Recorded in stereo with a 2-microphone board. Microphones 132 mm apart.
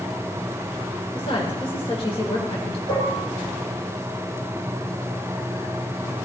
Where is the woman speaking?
45° left (ahead or behind), 1.7 m.